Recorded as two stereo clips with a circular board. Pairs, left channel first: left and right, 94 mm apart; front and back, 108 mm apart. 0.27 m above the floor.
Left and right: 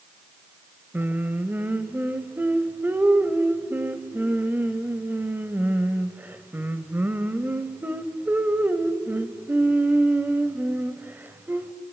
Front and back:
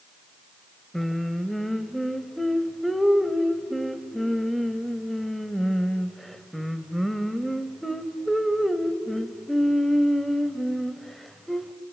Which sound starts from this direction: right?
Singing, at 0.9 s.